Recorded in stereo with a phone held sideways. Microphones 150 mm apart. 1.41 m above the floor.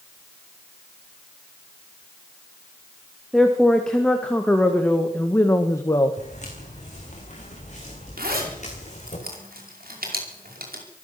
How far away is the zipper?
About 4.5 m.